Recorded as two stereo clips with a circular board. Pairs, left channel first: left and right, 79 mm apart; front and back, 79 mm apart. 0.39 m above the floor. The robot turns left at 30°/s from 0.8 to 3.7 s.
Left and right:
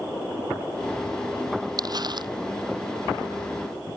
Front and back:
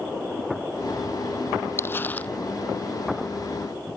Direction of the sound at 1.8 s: 55° right.